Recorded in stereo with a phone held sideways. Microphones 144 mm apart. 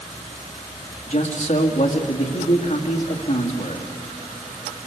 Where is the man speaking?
65° left (ahead or behind), 2.5 m.